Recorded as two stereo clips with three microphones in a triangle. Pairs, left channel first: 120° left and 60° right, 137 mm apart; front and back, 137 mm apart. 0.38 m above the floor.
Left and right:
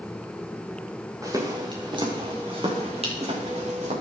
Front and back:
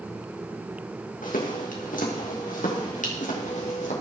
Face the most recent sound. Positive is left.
turn(degrees=-25)